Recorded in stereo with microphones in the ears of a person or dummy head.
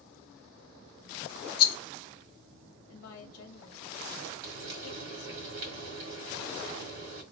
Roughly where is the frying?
Right.